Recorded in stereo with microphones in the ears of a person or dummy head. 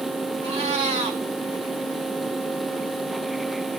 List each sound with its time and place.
0.4 s a cat meowing: 30° right (ahead or behind), 1.5 m